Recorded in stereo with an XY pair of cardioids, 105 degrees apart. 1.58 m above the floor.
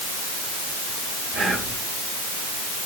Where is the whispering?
40° right, 3.5 m.